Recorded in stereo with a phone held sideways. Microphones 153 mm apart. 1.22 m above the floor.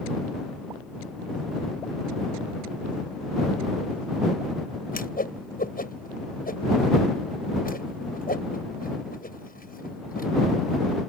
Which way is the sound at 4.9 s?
75° left (ahead or behind).